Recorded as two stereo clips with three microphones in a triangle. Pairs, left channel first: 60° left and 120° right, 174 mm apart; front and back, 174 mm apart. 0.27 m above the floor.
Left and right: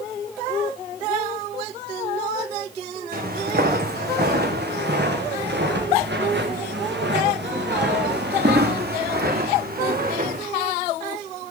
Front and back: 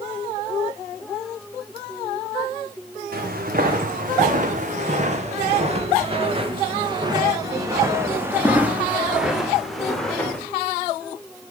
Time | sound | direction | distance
3.1 | footsteps | 150° right | 4.5 m